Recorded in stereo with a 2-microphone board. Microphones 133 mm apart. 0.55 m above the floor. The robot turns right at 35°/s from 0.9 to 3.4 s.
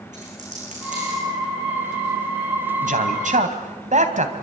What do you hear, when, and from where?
0.1 s a dropped coin: 65° right (ahead or behind), 9 m; by 1.2 s 75° right (ahead or behind), 9 m
2.8 s a man speaking: 75° right (ahead or behind), 3.5 m; by 4.3 s 65° right (ahead or behind), 3.5 m